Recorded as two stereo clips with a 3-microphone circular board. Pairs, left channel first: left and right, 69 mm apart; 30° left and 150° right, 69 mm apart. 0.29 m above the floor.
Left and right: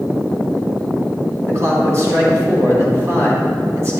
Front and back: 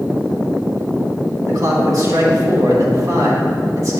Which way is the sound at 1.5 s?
130° right.